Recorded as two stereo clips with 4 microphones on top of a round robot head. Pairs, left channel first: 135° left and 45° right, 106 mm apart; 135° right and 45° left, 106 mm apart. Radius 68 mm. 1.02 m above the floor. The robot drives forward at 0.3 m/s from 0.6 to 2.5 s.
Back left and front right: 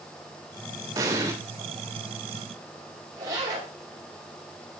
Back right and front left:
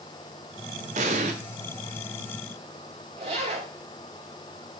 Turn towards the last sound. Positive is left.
turn(degrees=15)